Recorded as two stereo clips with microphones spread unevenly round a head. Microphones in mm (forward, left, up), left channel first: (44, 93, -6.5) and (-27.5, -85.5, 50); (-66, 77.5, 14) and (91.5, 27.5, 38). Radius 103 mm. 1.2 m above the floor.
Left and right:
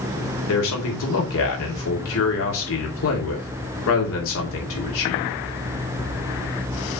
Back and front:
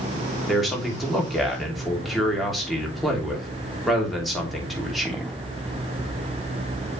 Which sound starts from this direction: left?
A man speaking, at 0.5 s.